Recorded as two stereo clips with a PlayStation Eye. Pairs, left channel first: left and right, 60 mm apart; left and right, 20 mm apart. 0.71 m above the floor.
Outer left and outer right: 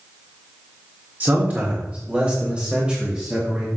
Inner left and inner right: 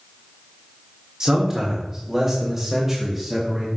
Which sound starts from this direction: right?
A man speaking, at 1.2 s.